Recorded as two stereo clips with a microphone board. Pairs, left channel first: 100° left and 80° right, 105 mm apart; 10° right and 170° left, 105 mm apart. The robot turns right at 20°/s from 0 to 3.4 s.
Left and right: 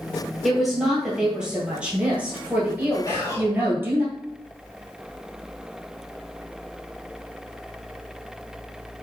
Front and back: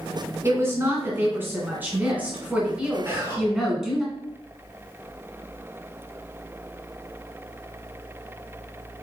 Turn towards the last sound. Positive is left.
turn(degrees=125)